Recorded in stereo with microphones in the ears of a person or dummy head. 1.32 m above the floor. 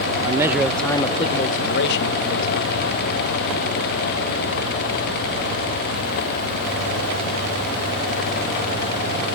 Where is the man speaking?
20° right (ahead or behind), 0.8 m; by 2.8 s 80° left, 1.4 m.